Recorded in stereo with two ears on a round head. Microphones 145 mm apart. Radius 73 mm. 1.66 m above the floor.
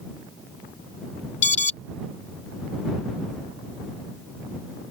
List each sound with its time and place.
1.4 s an alarm: 50° left (ahead or behind)